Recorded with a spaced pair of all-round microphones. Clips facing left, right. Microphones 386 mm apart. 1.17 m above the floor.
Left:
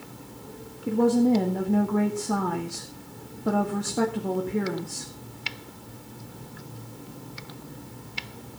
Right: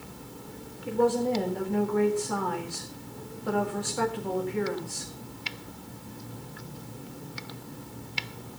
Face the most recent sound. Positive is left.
turn(degrees=55)  # may be behind; listen again after turning